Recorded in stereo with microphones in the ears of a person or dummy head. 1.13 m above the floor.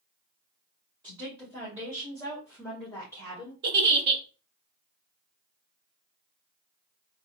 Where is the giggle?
40° right (ahead or behind), 0.7 m.